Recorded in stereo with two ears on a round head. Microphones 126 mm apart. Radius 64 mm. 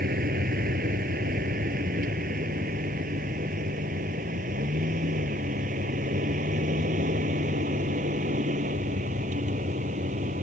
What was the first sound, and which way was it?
A vehicle, 70° right (ahead or behind).